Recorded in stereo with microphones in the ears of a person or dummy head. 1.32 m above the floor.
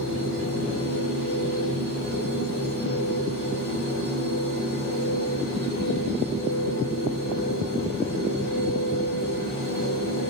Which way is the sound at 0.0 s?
50° left (ahead or behind).